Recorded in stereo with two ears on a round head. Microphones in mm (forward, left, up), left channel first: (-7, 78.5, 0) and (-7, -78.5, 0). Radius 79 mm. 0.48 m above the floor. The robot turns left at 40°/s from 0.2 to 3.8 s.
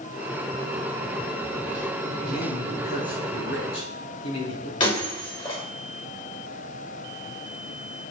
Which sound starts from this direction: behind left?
A man speaking, at 2.2 s.